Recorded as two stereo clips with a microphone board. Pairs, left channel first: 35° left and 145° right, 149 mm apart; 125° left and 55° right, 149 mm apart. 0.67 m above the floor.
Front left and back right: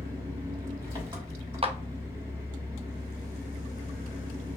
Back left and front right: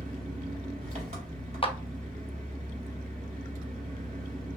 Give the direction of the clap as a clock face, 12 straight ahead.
6 o'clock.